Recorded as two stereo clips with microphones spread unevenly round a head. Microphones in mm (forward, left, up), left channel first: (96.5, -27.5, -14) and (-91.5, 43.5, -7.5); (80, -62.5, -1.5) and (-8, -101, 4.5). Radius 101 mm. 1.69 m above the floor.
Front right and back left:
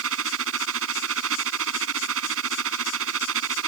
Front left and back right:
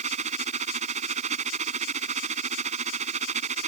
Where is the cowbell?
No cowbell in this recording.